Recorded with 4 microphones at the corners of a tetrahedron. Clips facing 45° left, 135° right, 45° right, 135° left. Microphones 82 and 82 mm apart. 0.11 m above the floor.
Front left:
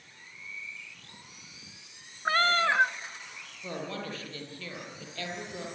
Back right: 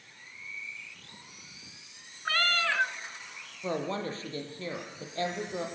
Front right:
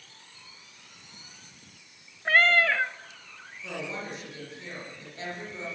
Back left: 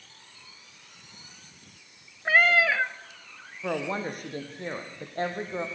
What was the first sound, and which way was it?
A cat meowing, 55° left.